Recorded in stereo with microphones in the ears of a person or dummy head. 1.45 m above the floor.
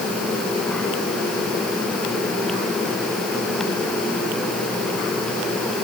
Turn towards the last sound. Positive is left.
No sound to turn to.